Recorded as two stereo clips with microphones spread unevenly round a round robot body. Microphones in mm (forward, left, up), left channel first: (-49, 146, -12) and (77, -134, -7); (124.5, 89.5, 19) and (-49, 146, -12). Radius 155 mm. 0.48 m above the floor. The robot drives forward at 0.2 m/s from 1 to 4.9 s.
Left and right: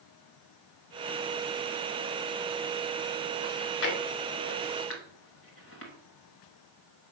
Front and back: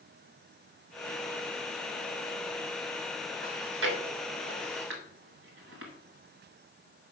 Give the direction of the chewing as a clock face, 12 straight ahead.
7 o'clock.